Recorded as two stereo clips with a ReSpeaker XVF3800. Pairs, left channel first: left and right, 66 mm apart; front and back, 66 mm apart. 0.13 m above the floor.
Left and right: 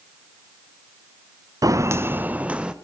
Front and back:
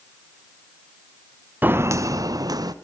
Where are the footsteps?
115° right, 0.8 m; by 2.7 s 165° right, 1.6 m.